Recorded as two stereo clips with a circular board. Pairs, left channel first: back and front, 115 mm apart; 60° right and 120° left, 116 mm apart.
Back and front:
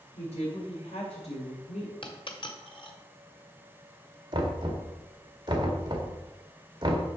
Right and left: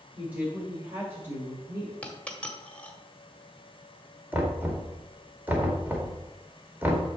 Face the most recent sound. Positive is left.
turn(degrees=45)